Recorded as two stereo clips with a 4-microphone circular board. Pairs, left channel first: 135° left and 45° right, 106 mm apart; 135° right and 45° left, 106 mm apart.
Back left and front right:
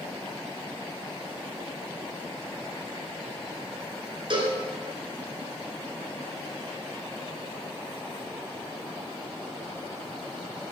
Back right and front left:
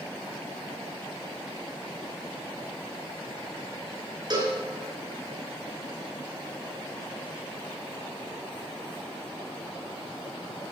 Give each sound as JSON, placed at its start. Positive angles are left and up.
{"t": 4.3, "sound": "a cowbell", "azimuth_deg": -5, "distance_m": 4.5}